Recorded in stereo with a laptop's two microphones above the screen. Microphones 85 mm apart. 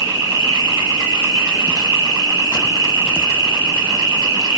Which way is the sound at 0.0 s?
35° right (ahead or behind).